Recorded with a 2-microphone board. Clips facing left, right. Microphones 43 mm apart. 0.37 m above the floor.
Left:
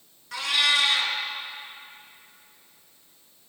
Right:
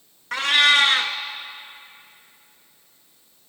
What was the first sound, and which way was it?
A cat meowing, 50° right (ahead or behind).